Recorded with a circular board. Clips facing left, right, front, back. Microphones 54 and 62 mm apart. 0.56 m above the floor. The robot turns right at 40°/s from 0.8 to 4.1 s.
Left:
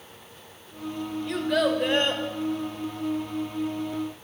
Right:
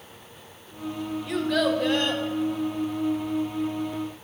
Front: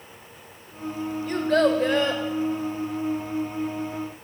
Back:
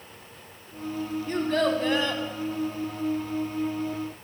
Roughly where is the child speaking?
Ahead.